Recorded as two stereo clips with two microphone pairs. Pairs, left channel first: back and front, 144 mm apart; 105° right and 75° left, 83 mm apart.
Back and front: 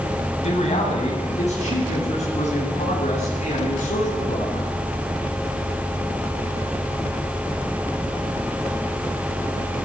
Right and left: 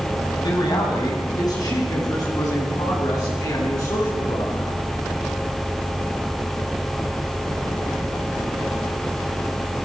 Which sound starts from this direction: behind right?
A man speaking, at 0.4 s.